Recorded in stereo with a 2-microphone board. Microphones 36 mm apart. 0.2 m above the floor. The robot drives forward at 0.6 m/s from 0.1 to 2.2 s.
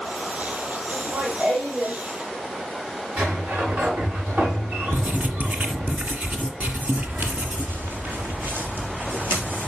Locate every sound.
0.9 s laughter: 40° right (ahead or behind), 6.5 m; by 2.0 s 45° right (ahead or behind), 6 m
3.2 s a sliding door: 80° right, 6 m
4.9 s writing: 55° right (ahead or behind), 1.8 m
7.0 s footsteps: 80° right, 1.0 m; by 9.7 s 75° right (ahead or behind), 4 m